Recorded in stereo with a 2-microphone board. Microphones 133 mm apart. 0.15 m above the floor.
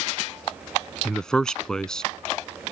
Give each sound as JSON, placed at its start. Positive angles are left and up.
{"t": 1.1, "sound": "a man speaking", "side_deg": 5}